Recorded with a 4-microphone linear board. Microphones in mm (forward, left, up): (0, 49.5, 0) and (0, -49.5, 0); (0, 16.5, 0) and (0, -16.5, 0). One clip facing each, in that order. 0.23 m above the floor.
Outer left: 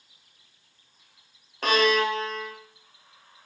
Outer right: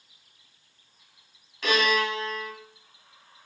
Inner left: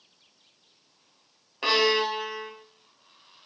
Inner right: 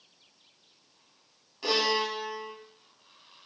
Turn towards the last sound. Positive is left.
turn(degrees=45)  # may be behind; listen again after turning